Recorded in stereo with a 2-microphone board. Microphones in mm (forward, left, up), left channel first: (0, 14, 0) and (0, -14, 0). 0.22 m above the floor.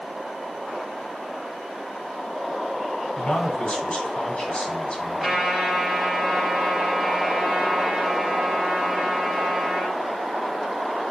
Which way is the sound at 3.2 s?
40° left (ahead or behind).